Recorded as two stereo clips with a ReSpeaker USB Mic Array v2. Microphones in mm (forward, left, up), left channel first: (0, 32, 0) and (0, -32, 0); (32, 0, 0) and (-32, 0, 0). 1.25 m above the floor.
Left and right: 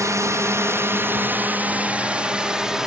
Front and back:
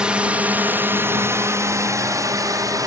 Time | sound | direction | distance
0.0 | a drone | 105° right | ?